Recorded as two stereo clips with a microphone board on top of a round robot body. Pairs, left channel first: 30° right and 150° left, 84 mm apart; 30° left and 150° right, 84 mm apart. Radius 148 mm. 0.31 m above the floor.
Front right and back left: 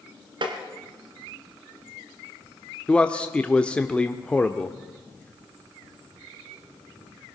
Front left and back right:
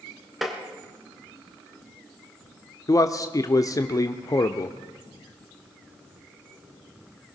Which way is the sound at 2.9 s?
40° left.